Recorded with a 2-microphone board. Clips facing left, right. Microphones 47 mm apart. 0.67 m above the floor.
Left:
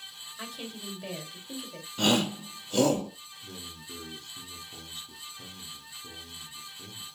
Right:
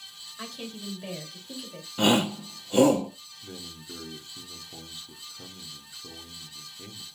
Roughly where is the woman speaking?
Centre.